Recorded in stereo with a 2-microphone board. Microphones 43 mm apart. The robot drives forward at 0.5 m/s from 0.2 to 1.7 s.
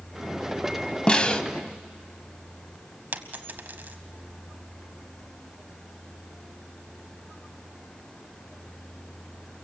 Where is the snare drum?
20° left (ahead or behind), 0.8 m; by 1.4 s 25° left (ahead or behind), 0.7 m.